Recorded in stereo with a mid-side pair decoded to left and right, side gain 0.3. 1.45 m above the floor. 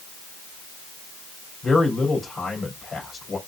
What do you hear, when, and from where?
1.6 s a man speaking: 55° left, 3 m